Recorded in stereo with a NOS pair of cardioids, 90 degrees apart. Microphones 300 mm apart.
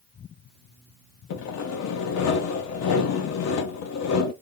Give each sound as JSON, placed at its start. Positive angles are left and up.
{"t": 1.3, "sound": "sawing", "azimuth_deg": 60, "distance_m": 0.8}